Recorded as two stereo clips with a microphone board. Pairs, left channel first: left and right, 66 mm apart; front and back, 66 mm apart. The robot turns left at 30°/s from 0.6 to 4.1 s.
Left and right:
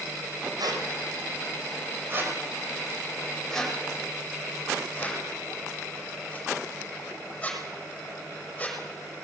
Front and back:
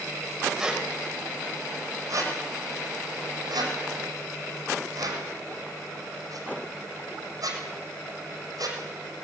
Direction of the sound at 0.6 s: 95° right.